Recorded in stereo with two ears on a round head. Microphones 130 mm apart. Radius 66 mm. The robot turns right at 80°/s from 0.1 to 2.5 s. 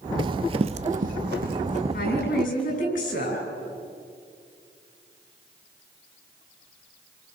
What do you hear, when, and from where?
0.2 s running footsteps: 35° right (ahead or behind), 0.5 m; by 2.8 s 5° left (ahead or behind), 3.5 m
1.9 s a woman speaking: 65° left, 7.5 m; by 3.4 s 110° left, 7.5 m